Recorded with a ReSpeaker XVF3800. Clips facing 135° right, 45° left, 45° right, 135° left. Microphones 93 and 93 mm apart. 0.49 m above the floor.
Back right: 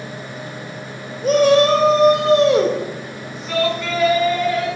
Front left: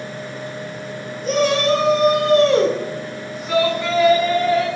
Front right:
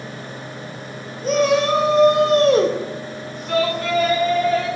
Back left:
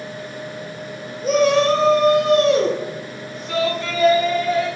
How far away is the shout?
About 1.8 m.